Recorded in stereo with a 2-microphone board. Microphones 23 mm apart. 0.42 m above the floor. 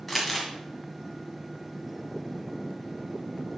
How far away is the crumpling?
About 2 m.